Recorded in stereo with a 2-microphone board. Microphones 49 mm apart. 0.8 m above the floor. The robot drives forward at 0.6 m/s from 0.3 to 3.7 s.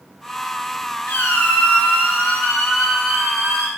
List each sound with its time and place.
1.1 s a squeak: 45° left (ahead or behind), 0.6 m; by 3.7 s 10° left (ahead or behind), 1.9 m